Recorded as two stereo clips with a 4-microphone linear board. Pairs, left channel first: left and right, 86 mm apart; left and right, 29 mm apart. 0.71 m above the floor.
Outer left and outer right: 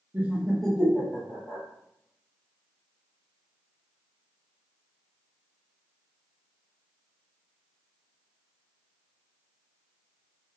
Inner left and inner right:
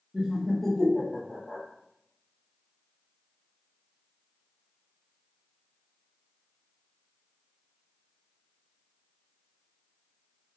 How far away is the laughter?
About 0.6 m.